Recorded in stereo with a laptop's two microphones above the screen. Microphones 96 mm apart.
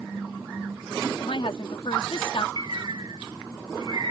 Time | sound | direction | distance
1.2 | a woman speaking | 65° left (ahead or behind) | ?
2.6 | a bird | 45° right (ahead or behind) | ?